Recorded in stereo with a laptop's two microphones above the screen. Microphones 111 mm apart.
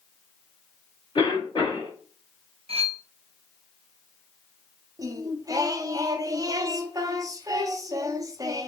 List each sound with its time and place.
1.1 s a cough: 45° left (ahead or behind), 2.5 m
2.7 s cutlery clinking: 65° right (ahead or behind), 0.8 m
5.0 s singing: 30° right (ahead or behind), 0.6 m